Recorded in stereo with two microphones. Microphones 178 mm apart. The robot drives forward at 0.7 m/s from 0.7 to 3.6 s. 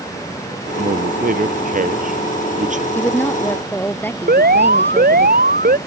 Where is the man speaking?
55° right (ahead or behind); by 2.9 s 45° right (ahead or behind).